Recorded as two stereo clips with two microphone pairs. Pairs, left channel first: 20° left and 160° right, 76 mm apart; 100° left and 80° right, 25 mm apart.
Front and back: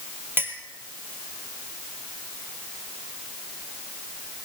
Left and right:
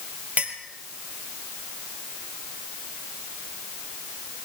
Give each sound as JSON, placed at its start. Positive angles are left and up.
{"t": 0.4, "sound": "a clink", "azimuth_deg": -100, "distance_m": 2.5}